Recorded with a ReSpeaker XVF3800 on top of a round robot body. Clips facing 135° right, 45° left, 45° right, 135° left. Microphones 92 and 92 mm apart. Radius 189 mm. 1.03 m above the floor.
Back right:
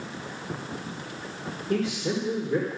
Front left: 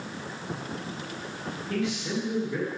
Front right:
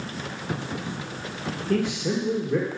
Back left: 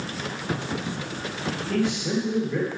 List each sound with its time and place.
1.7 s a man speaking: 80° right, 1.7 m